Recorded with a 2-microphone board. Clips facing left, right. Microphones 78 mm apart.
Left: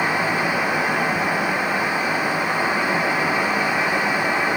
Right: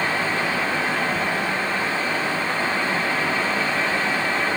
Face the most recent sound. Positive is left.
No sound to turn to.